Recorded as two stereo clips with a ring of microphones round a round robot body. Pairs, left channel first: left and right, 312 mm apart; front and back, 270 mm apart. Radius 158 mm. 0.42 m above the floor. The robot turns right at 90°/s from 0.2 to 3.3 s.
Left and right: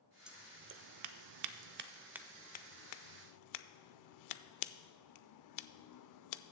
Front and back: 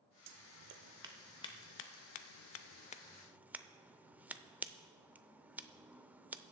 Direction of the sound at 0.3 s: Straight behind.